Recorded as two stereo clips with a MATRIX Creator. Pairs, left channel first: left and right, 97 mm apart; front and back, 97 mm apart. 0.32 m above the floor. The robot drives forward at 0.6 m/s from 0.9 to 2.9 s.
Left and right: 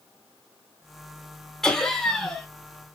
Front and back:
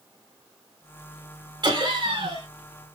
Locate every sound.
1.6 s laughter: 175° left, 1.5 m